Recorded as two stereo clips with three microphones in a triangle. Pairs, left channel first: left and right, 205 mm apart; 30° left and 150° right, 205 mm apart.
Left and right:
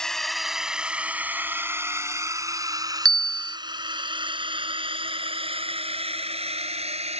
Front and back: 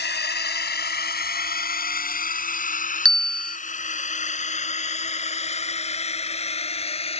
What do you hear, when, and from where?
0.0 s a drone: 5° left; by 7.2 s 30° right
3.0 s a bell: 60° left